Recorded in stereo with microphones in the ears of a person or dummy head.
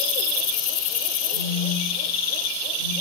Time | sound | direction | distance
1.3 | a phone buzzing | 65° left (ahead or behind) | 2.5 m